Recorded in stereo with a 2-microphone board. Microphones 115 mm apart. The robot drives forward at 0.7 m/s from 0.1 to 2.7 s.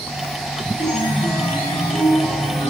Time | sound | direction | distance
0.8 | a chime | 35° left (ahead or behind) | 4.5 m